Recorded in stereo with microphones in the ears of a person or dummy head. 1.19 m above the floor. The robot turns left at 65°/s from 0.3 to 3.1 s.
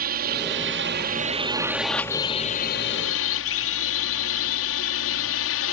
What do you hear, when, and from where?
0.0 s a drone: 50° right (ahead or behind); by 5.7 s 65° left (ahead or behind)